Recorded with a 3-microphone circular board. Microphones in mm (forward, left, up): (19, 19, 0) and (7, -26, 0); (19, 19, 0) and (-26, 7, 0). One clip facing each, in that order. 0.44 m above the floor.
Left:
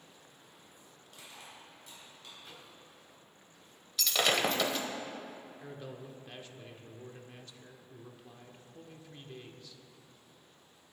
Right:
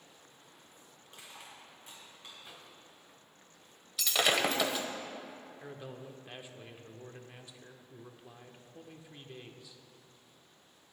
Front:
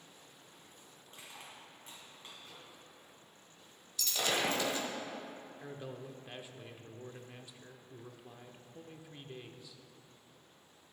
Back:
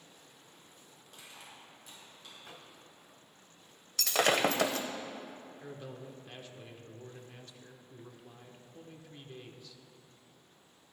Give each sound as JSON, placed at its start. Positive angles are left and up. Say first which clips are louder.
{"t": 1.1, "sound": "crushing", "louder": "even, front 1 dB", "azimuth_deg": -40, "distance_m": 4.0}
{"t": 2.4, "sound": "a microwave", "louder": "even, back 2 dB", "azimuth_deg": 175, "distance_m": 1.9}
{"t": 4.0, "sound": "breaking glass", "louder": "even, back 6 dB", "azimuth_deg": 170, "distance_m": 0.9}
{"t": 5.6, "sound": "a man speaking", "louder": "even, front 1 dB", "azimuth_deg": -45, "distance_m": 0.7}